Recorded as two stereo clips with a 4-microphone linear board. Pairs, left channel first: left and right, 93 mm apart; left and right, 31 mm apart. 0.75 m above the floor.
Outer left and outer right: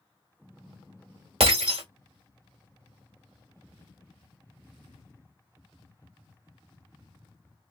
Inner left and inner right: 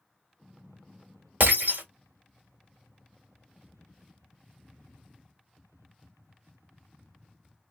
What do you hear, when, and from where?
1.4 s breaking glass: 85° right, 1.6 m